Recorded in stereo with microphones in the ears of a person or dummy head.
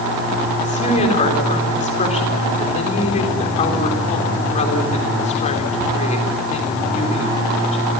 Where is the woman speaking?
40° left (ahead or behind), 4 m.